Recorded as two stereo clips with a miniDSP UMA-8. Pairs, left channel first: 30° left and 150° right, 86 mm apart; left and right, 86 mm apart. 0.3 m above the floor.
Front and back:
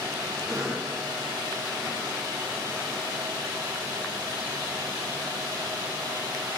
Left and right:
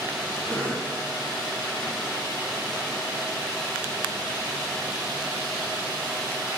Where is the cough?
165° left, 3.5 m.